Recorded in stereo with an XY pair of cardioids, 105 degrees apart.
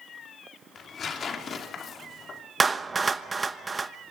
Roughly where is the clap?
Ahead right.